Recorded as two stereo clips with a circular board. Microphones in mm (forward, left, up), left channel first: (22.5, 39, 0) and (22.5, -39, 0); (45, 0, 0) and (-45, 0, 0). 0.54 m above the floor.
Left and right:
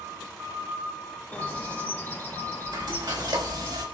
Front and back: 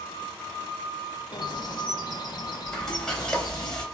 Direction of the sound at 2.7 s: 85° right.